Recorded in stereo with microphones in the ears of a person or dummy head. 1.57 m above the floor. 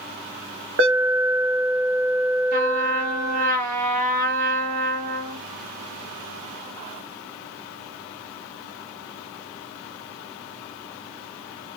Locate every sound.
0.8 s an alarm: 55° right (ahead or behind), 3.5 m
2.5 s a trumpet: 45° right (ahead or behind), 3.5 m